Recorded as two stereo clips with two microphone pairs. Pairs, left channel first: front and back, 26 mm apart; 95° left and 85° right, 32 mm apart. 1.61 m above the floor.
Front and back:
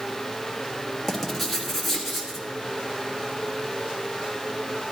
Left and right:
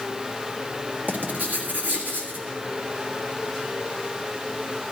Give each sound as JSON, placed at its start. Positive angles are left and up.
{"t": 1.1, "sound": "writing", "azimuth_deg": -80, "distance_m": 1.8}